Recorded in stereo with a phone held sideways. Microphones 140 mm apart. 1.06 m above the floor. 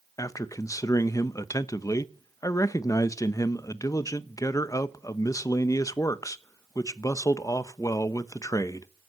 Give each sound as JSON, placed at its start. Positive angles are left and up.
{"t": 0.2, "sound": "a man speaking", "side_deg": 25, "distance_m": 0.9}